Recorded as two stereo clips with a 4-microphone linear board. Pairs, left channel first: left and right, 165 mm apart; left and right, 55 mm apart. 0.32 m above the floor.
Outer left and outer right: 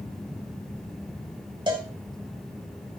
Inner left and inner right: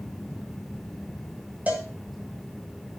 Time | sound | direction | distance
1.7 | a cowbell | 30° right (ahead or behind) | 1.9 m